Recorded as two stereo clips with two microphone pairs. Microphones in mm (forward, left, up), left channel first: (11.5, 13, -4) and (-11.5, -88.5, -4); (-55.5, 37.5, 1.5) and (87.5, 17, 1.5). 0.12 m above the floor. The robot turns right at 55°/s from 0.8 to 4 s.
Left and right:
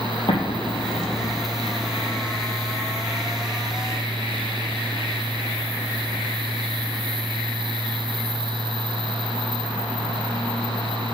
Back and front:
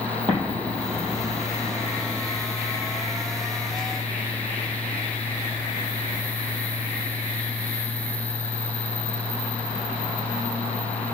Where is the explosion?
40° left, 3 m; by 1.4 s 75° left, 3 m.